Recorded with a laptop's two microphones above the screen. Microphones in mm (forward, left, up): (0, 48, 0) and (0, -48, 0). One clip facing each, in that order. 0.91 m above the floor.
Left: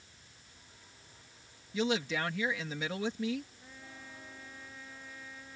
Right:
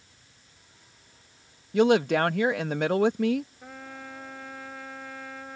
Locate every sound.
1.7 s a woman speaking: 60° right (ahead or behind)
3.6 s a trumpet: 75° right (ahead or behind)